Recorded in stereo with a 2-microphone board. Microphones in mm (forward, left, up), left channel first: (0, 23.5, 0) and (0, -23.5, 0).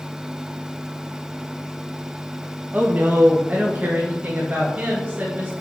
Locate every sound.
2.7 s a woman speaking: 35° right (ahead or behind), 0.9 m